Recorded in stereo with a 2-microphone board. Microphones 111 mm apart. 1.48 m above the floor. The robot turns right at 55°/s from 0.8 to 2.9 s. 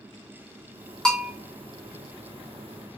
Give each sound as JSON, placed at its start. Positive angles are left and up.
{"t": 1.1, "sound": "a bell", "side_deg": 5, "distance_m": 0.6}